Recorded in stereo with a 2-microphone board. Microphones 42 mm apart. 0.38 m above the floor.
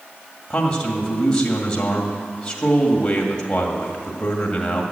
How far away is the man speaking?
About 1.9 m.